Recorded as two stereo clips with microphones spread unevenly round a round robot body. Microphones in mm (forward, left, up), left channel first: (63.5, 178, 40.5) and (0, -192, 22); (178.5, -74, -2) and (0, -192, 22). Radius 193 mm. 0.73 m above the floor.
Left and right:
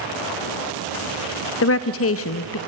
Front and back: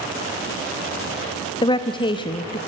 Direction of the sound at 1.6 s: 65° left.